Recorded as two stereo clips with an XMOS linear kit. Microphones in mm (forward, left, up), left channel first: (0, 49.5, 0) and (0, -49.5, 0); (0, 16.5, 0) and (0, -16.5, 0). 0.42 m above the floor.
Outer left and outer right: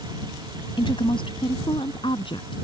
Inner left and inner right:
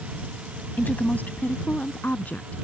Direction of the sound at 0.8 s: 55° left (ahead or behind).